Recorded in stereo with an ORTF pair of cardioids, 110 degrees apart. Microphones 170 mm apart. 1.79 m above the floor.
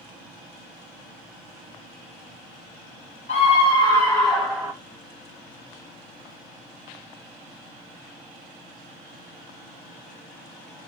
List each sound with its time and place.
3.3 s a scream: 45° left, 1.5 m; by 4.7 s 20° right, 1.1 m